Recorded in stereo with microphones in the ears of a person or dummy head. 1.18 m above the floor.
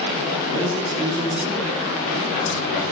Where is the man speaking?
40° right (ahead or behind), 0.8 m; by 2.8 s 40° left (ahead or behind), 0.9 m.